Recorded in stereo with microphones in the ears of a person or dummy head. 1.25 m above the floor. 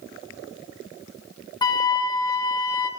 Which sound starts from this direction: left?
A flute, at 1.6 s.